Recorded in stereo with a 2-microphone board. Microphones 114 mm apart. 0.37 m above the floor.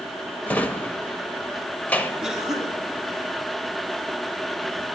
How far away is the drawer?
About 0.7 m.